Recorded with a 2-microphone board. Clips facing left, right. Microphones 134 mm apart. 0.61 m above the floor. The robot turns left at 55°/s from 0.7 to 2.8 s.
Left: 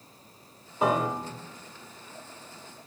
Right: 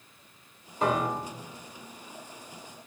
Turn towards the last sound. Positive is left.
turn(degrees=65)